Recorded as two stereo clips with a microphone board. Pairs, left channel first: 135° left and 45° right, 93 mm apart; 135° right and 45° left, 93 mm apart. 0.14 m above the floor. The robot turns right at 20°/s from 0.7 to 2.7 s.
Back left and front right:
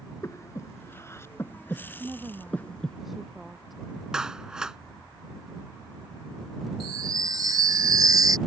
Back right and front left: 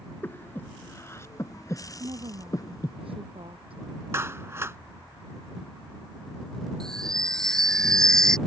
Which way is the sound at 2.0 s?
30° left.